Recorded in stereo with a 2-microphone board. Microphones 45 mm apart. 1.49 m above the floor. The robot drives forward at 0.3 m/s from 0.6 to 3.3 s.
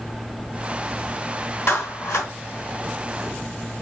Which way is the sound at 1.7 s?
70° left (ahead or behind).